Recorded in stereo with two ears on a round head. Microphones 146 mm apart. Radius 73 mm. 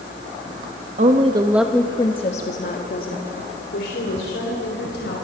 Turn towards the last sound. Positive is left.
turn(degrees=70)  # may be behind; listen again after turning